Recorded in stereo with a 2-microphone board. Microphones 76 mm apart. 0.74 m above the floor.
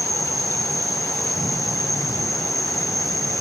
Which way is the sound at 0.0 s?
Centre (ahead or behind).